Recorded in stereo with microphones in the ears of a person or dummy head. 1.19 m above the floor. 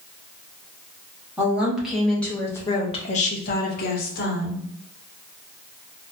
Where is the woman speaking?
10° right (ahead or behind), 1.1 m; by 4.6 s 45° left (ahead or behind), 1.0 m.